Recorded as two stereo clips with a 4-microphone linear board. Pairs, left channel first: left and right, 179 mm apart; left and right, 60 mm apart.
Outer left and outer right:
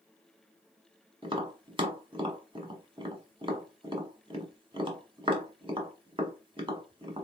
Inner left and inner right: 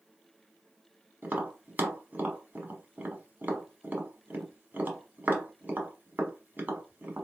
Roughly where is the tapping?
Right.